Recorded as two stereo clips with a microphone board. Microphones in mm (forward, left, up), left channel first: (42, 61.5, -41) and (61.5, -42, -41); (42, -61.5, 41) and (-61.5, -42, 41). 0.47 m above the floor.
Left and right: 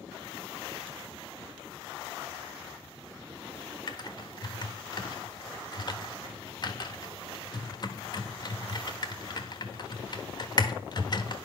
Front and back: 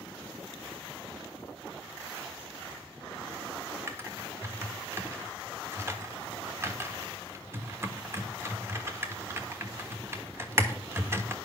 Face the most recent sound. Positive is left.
turn(degrees=115)